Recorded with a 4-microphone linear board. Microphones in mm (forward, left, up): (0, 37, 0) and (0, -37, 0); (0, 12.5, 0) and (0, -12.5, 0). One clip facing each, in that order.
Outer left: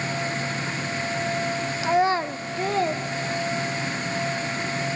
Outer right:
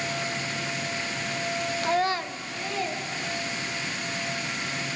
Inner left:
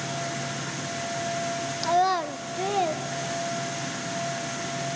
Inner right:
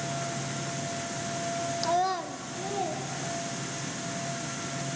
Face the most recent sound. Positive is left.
turn(degrees=60)  # may be behind; listen again after turning